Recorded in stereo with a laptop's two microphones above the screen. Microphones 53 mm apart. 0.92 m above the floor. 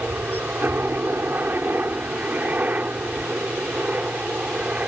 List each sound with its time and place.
0.0 s a helicopter: 45° right (ahead or behind); by 4.9 s 25° right (ahead or behind)